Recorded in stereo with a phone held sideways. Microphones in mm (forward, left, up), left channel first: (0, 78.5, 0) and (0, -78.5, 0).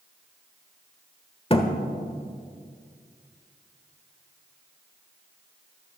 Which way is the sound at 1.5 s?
35° left (ahead or behind).